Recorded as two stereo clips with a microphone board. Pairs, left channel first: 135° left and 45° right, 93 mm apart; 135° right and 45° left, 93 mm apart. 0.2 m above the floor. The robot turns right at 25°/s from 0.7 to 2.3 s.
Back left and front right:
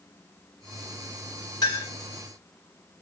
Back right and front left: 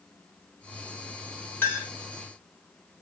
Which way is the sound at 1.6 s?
160° left.